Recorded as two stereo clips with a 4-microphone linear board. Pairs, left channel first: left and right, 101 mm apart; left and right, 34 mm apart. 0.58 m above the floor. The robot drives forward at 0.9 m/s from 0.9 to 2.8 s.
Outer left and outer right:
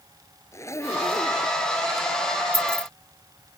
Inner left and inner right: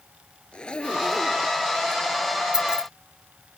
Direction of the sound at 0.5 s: 30° left (ahead or behind).